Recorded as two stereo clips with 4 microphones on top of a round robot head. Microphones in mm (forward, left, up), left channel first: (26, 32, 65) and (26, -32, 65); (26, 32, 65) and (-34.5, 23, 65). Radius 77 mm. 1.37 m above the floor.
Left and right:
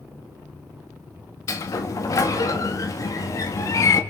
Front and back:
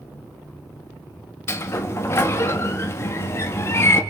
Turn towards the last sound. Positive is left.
turn(degrees=55)